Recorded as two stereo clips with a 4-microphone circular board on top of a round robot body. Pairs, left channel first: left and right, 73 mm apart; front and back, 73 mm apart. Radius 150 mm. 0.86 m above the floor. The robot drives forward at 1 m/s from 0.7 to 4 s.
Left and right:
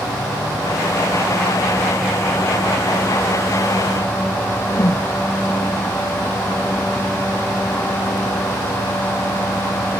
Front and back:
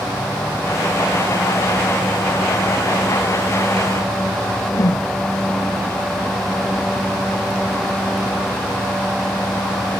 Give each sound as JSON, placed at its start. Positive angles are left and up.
{"t": 4.7, "sound": "a whoosh", "azimuth_deg": 40}